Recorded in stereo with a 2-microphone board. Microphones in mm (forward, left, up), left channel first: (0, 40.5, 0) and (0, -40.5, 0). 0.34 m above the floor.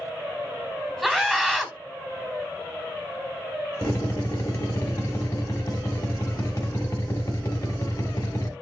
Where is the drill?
40° left (ahead or behind), 1.4 m.